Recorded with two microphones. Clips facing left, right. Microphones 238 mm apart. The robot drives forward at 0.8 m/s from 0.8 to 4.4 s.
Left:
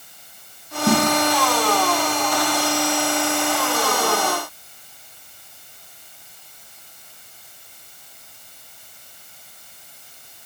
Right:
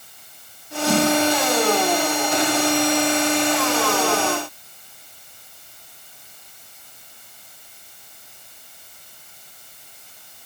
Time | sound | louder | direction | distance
0.9 | a snare drum | left 1 dB | 55° left (ahead or behind) | 2.5 m